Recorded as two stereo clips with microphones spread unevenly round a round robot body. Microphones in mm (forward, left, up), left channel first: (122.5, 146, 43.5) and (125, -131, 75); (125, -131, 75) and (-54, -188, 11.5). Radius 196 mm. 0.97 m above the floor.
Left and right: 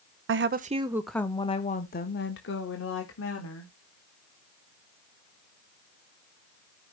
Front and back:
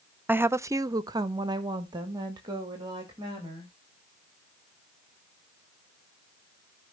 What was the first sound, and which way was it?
A woman speaking, 110° right.